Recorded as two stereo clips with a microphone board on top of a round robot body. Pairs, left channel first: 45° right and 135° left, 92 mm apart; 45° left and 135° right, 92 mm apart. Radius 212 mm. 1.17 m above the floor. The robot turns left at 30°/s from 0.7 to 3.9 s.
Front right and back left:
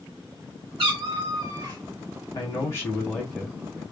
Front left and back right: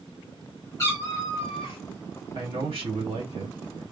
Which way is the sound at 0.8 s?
100° left.